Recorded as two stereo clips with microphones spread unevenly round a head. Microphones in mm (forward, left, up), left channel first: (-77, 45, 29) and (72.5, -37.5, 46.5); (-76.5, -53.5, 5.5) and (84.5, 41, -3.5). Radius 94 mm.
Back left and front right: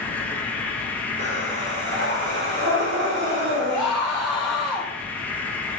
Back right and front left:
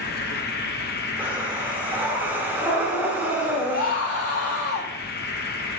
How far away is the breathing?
About 1.9 m.